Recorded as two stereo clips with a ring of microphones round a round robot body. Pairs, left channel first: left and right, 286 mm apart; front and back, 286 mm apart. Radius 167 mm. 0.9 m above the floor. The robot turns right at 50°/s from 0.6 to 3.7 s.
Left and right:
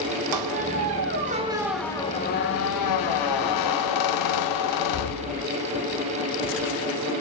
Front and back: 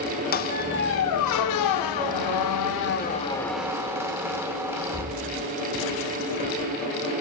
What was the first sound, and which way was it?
A squeak, 60° right.